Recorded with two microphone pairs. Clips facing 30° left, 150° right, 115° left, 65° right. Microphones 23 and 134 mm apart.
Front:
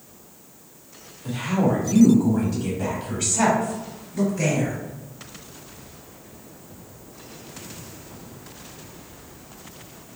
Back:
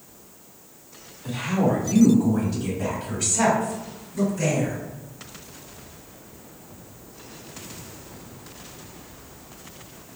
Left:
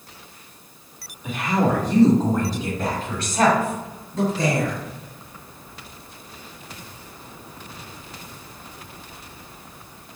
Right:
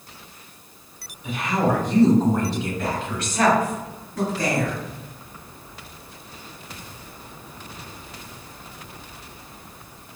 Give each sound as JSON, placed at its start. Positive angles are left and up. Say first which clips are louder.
{"t": 1.2, "sound": "a woman speaking", "louder": "front 1 dB, left 1 dB", "azimuth_deg": 140, "distance_m": 1.9}